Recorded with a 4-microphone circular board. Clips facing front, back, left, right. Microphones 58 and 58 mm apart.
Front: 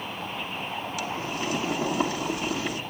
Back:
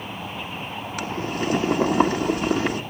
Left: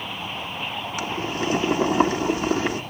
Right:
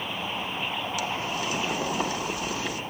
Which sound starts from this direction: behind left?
Boiling, at 1.0 s.